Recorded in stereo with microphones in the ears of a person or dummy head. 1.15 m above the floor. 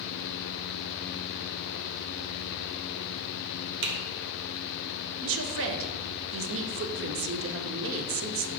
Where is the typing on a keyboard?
65° right (ahead or behind), 0.9 m.